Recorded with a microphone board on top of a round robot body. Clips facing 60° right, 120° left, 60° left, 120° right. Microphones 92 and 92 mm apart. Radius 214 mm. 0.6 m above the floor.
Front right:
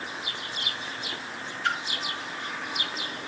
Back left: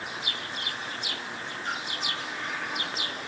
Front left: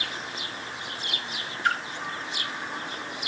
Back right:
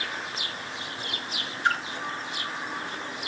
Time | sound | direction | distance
1.6 | a splash | 50° right | 2.0 m